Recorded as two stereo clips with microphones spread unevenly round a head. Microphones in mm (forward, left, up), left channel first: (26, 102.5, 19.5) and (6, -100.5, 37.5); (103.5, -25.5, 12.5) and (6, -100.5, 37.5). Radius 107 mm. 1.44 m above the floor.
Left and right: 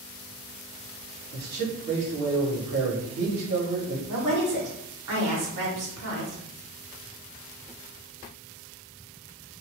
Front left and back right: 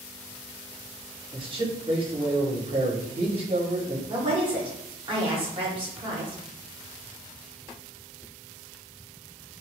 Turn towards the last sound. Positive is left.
turn(degrees=-95)